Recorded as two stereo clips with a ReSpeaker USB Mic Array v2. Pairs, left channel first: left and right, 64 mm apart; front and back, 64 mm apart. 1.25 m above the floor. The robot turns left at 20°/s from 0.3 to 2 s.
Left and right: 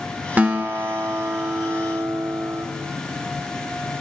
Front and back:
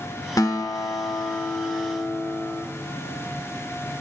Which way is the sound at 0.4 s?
25° right.